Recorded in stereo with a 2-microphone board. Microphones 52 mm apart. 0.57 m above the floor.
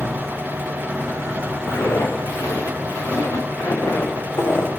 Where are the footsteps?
85° left, 5 m; by 4.7 s 55° left (ahead or behind), 2.5 m.